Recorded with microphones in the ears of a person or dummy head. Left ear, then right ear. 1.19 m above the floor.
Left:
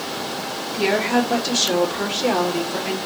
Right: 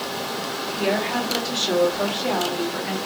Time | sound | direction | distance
0.7 | a woman speaking | 85° left | 2.5 m